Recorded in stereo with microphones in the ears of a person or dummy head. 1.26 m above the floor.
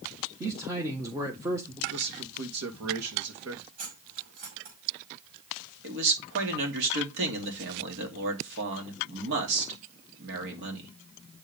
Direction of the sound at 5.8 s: 60° right (ahead or behind).